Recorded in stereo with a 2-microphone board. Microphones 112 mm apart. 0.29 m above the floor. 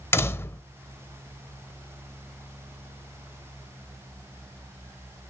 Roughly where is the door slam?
Left.